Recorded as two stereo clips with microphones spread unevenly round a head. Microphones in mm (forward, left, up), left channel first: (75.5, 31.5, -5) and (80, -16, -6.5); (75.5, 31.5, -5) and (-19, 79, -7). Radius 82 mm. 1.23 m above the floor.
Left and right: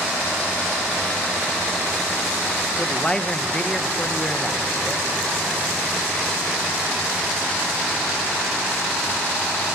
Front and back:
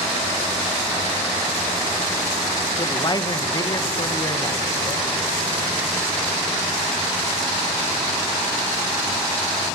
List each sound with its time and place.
2.8 s a man speaking: 20° left, 1.5 m